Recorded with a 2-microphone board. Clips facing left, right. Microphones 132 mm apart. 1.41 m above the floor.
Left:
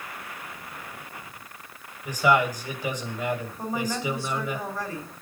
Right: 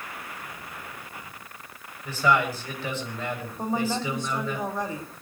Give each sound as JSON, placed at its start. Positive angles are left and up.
{"t": 2.0, "sound": "a man speaking", "side_deg": 15, "distance_m": 8.0}
{"t": 3.6, "sound": "a woman speaking", "side_deg": -20, "distance_m": 4.5}